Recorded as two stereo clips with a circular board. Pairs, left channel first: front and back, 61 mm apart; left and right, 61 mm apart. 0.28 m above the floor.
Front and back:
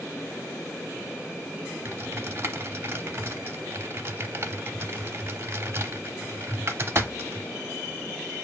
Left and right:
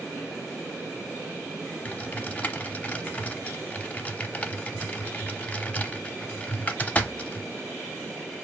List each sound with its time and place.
1.9 s typing on a keyboard: 150° left, 0.7 m